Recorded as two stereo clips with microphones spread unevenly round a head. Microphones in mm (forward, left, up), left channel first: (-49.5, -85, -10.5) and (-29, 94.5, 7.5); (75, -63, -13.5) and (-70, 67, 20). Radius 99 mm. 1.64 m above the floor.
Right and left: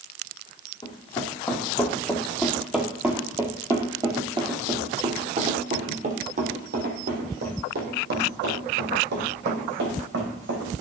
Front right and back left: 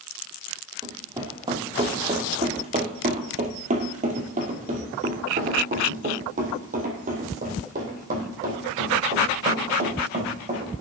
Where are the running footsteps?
160° right, 2.5 m; by 10.7 s 85° left, 4.5 m.